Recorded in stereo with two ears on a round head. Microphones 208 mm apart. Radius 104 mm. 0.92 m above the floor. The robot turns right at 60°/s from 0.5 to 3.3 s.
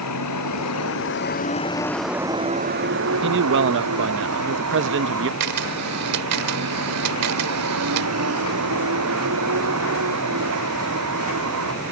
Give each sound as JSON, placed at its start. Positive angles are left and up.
{"t": 0.0, "sound": "a vehicle", "azimuth_deg": 90}
{"t": 3.2, "sound": "a man speaking", "side_deg": -50}
{"t": 5.4, "sound": "a camera shutter", "side_deg": -85}